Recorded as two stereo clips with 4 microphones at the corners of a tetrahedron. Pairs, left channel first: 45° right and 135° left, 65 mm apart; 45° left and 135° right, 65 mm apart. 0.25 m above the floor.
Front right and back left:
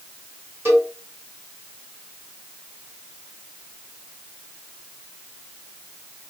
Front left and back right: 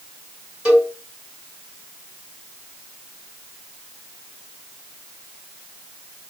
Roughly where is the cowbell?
Behind.